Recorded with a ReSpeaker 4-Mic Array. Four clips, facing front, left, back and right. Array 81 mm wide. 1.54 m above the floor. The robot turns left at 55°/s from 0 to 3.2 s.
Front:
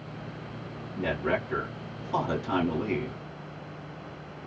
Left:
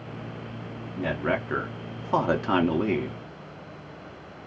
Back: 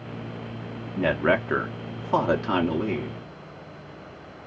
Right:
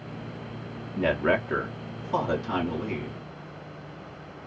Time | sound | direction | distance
0.9 | a man speaking | 160° right | 0.7 m